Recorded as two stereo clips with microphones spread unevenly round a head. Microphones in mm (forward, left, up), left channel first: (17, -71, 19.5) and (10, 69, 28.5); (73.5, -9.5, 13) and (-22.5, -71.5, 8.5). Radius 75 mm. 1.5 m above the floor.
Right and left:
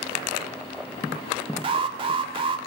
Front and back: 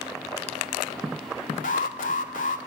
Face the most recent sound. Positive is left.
turn(degrees=40)